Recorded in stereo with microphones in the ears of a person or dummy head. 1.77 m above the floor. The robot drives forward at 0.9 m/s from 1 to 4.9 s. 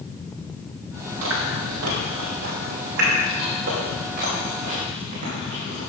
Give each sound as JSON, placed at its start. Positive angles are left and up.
{"t": 1.2, "sound": "chewing", "side_deg": -85, "distance_m": 2.5}